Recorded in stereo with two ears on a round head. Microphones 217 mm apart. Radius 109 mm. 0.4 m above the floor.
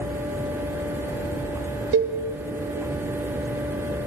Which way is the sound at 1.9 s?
55° right (ahead or behind).